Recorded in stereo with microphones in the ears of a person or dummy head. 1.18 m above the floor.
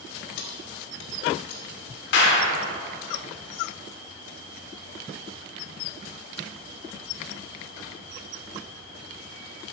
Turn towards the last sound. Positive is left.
turn(degrees=70)  # may be behind; listen again after turning